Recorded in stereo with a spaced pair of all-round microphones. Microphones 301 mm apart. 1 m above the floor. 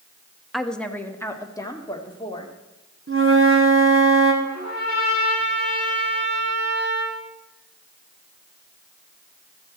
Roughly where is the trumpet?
Right.